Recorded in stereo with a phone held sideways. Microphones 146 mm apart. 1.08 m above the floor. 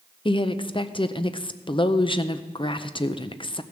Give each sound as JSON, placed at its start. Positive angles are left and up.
{"t": 0.2, "sound": "a woman speaking", "side_deg": 35, "distance_m": 0.5}